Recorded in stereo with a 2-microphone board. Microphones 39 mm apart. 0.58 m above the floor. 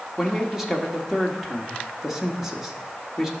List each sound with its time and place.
0.2 s a man speaking: 10° right (ahead or behind), 1.5 m